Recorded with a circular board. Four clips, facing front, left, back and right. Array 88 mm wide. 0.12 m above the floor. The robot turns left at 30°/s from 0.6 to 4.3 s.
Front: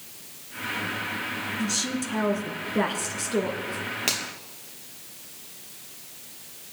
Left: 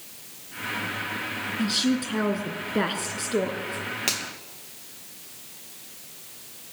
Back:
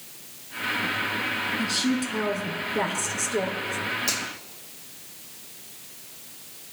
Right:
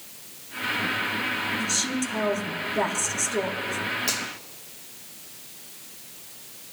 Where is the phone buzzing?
No phone buzzing in this recording.